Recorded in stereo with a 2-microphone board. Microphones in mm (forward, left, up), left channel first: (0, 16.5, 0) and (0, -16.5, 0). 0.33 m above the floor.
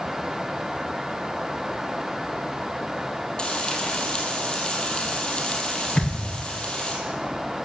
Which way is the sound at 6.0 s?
35° left (ahead or behind).